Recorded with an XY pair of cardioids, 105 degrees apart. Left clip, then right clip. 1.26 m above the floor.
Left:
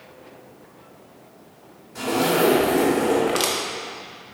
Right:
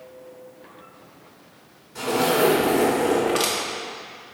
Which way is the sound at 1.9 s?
15° left.